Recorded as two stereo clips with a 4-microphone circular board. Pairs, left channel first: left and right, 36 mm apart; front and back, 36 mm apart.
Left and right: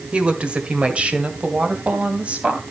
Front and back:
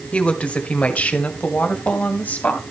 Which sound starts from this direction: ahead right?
A woman speaking, at 0.1 s.